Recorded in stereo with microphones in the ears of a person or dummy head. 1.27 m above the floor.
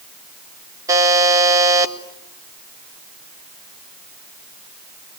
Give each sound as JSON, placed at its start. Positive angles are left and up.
{"t": 0.9, "sound": "a buzzer", "side_deg": -20, "distance_m": 1.6}